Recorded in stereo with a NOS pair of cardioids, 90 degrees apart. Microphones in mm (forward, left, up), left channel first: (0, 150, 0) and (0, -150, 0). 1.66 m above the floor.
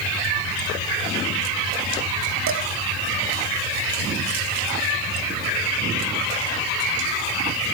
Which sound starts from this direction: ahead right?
Dishes clattering, at 2.5 s.